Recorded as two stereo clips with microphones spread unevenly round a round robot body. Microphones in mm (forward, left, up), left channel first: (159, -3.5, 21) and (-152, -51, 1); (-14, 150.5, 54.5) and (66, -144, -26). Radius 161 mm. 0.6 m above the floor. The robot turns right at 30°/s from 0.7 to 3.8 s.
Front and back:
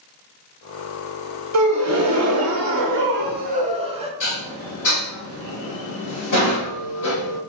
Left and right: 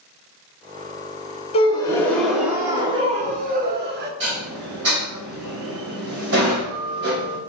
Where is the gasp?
175° right, 0.7 m; by 4.1 s 105° right, 0.7 m.